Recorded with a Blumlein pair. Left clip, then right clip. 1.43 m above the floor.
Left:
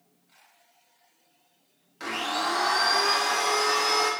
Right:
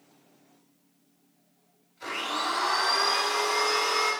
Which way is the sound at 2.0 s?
55° left.